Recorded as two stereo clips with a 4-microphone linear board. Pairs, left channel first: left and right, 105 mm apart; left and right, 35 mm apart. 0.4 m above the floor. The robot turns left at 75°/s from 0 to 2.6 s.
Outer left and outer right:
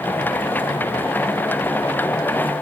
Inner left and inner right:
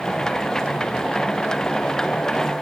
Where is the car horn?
No car horn in this recording.